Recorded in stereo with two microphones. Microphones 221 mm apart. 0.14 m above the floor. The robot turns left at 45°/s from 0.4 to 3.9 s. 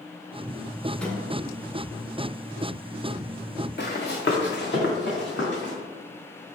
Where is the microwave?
5° left (ahead or behind), 0.9 m; by 1.2 s centre (ahead or behind), 0.9 m.